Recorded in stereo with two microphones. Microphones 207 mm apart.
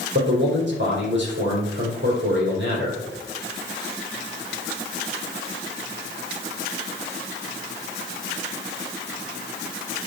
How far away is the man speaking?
About 4.5 m.